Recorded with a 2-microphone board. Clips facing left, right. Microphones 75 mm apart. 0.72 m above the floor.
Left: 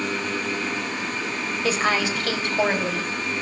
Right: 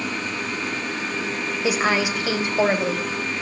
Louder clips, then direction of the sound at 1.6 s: Right 1 dB; 15° right (ahead or behind).